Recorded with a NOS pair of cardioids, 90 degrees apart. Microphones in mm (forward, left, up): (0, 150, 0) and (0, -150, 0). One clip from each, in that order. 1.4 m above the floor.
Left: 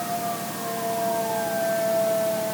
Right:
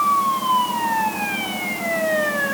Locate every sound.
Only background noise.